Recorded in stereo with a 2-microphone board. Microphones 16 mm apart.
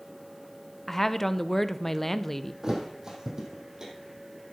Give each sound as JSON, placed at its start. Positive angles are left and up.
{"t": 0.9, "sound": "a woman speaking", "side_deg": 15, "distance_m": 0.5}
{"t": 2.6, "sound": "a thud", "side_deg": -35, "distance_m": 2.0}